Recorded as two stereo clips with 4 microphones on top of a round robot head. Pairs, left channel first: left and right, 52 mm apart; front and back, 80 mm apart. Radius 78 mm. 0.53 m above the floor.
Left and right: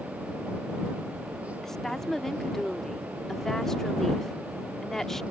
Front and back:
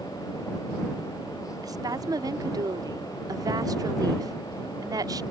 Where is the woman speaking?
170° left.